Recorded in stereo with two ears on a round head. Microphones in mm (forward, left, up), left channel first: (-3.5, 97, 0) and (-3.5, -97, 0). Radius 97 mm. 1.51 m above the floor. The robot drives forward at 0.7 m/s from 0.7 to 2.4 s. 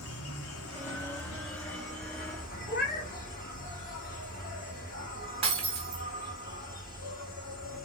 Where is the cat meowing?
45° left (ahead or behind), 1.0 m.